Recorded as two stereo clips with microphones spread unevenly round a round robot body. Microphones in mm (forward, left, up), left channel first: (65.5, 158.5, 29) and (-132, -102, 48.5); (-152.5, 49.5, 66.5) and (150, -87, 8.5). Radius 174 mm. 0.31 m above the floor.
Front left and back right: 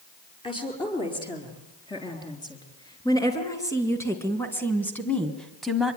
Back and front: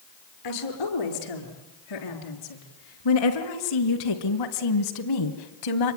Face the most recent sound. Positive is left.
turn(degrees=145)